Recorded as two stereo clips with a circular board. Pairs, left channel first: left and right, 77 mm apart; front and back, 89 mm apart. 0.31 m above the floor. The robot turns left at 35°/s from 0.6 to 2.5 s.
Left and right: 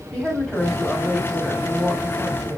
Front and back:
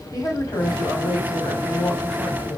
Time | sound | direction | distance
0.1 | a woman speaking | 5° right | 1.9 m